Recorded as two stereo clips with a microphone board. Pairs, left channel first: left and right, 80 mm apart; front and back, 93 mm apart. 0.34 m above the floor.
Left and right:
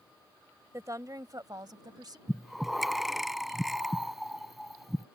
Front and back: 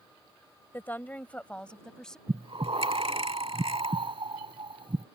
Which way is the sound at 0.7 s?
60° right.